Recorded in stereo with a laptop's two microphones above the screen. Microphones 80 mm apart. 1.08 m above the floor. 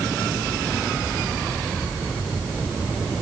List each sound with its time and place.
Only background noise.